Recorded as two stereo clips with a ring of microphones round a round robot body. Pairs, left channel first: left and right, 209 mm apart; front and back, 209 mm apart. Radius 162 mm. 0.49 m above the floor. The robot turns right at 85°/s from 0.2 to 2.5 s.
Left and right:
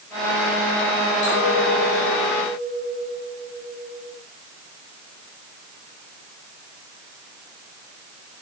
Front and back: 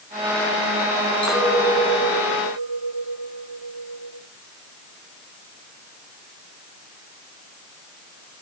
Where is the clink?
85° left, 4.5 m; by 4.2 s 165° right, 4.5 m.